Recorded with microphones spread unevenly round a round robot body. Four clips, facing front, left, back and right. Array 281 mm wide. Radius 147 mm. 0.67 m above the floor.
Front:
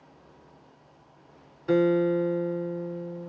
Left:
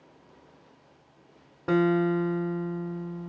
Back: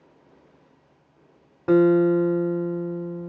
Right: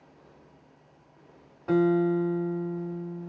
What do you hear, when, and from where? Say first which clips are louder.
1.7 s a guitar: even, back 5 dB; 140° left, 1.2 m